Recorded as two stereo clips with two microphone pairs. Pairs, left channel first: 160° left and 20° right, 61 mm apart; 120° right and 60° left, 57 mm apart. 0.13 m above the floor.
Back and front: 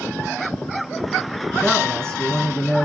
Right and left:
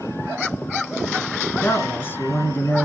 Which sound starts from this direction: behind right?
A man speaking, at 1.6 s.